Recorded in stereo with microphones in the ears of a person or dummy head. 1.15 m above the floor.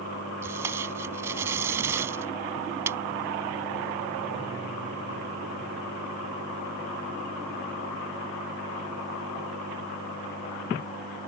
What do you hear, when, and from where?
0.4 s tape being pulled: 15° right (ahead or behind)